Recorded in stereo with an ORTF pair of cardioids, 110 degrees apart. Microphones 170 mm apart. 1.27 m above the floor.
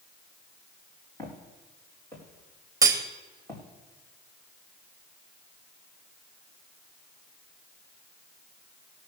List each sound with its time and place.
1.2 s footsteps: 15° left, 4 m
2.8 s cutlery clinking: 20° right, 1.4 m